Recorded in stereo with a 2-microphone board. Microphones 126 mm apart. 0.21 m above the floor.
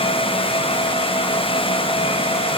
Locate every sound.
Only background noise.